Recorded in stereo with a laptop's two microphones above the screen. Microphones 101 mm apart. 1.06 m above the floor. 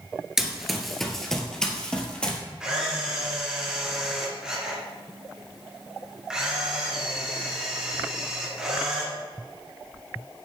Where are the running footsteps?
5° right (ahead or behind), 1.2 m; by 2.4 s 10° left (ahead or behind), 2.0 m.